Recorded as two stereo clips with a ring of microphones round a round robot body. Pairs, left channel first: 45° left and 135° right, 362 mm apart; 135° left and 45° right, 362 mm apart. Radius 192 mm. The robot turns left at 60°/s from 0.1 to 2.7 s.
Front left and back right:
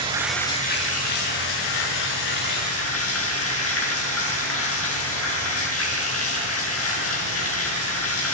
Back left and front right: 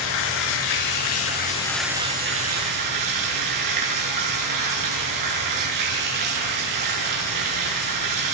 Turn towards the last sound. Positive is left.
turn(degrees=-10)